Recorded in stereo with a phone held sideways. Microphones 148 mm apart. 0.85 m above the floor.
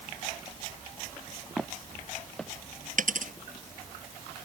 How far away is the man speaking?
No man speaking in this recording.